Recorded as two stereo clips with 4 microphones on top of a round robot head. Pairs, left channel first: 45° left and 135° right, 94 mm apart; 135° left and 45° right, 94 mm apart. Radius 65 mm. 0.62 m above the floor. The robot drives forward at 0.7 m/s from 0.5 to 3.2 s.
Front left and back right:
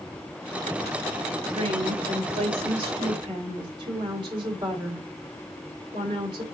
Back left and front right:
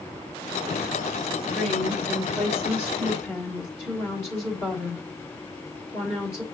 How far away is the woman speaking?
About 2.0 m.